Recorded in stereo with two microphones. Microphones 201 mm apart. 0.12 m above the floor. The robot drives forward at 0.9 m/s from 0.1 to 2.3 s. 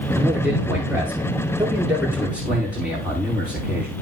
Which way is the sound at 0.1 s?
10° right (ahead or behind).